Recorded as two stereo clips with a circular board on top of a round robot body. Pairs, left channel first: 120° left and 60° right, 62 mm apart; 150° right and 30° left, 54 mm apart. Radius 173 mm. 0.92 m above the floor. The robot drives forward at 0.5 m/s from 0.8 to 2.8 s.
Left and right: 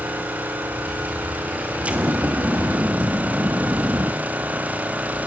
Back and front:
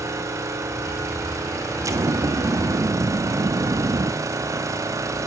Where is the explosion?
10° left, 1.7 m; by 4.1 s 15° left, 1.2 m.